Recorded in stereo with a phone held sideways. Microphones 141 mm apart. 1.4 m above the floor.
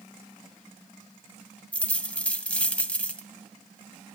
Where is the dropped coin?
5° left (ahead or behind), 2.5 m.